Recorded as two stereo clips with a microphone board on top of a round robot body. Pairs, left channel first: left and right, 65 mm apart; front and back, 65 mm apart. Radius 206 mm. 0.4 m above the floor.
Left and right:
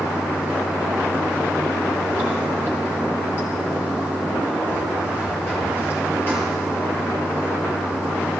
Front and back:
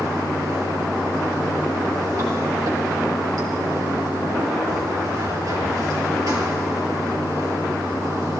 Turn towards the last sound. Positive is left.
turn(degrees=150)